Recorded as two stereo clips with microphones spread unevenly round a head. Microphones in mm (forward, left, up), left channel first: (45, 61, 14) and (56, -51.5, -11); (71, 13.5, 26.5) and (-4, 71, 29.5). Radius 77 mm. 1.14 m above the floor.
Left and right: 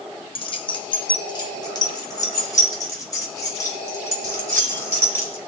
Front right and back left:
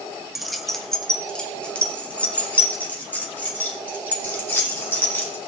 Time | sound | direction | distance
0.3 | keys jangling | 55° left | 1.2 m